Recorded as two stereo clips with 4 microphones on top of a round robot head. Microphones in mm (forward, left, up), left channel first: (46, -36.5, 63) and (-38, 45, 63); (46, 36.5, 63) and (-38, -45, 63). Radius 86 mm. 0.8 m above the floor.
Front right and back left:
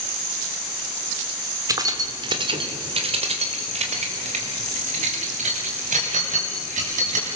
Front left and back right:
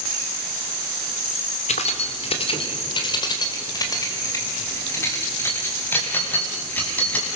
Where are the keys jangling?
75° left, 2 m; by 7.4 s 125° left, 6 m.